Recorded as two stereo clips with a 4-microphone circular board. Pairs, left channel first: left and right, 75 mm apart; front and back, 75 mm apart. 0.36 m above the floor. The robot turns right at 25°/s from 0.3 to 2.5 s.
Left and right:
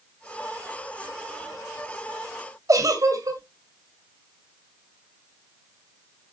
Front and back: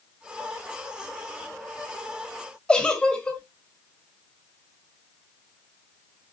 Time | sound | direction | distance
2.7 | a giggle | 75° right | 2.5 m